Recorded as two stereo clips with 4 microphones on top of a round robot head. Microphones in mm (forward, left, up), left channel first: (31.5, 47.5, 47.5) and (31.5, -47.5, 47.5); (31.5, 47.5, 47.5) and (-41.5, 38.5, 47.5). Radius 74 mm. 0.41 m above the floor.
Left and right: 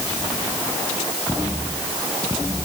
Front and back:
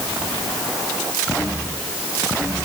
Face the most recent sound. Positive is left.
No sound to turn to.